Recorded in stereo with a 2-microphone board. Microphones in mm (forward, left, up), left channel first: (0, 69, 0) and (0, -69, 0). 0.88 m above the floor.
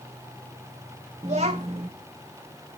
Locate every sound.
1.2 s a child speaking: 50° right (ahead or behind), 0.7 m